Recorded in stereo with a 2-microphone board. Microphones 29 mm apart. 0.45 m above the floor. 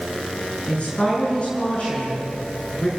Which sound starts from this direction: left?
A woman speaking, at 0.7 s.